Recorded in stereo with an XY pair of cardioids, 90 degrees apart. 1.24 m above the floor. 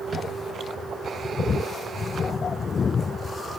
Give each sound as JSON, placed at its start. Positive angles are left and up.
{"t": 0.1, "sound": "a drawer", "azimuth_deg": -40, "distance_m": 5.5}